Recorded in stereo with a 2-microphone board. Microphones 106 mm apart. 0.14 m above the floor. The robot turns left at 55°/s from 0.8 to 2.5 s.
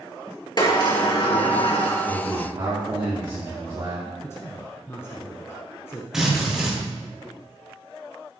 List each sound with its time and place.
0.6 s a sliding door: 130° left, 2.5 m; by 2.0 s 65° left, 2.5 m
2.1 s a man speaking: 20° right (ahead or behind), 3.5 m; by 4.1 s 45° right (ahead or behind), 3.5 m
4.2 s a man speaking: 25° left (ahead or behind), 1.3 m
6.1 s a drill: 5° right (ahead or behind), 5 m